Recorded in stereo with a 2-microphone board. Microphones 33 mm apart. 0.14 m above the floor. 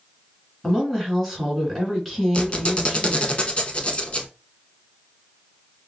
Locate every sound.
0.6 s a woman speaking: 5° left (ahead or behind), 1.8 m
2.3 s a squeak: 35° left (ahead or behind), 0.6 m